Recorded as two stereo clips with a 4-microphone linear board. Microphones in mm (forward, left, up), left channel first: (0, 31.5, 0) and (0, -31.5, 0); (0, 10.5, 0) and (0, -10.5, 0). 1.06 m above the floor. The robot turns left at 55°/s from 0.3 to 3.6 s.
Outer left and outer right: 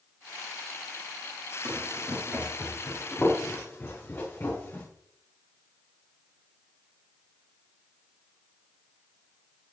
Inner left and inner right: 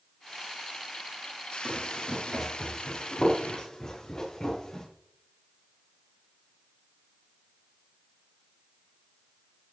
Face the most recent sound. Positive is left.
turn(degrees=35)  # may be behind; listen again after turning